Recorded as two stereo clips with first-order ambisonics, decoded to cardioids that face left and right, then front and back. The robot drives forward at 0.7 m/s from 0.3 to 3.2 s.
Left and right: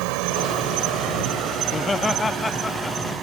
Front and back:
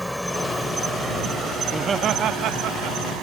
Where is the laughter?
115° left; by 3.2 s 170° left.